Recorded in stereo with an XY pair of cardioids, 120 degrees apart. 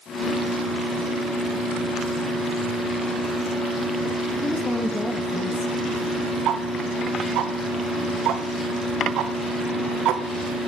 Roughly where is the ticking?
Right.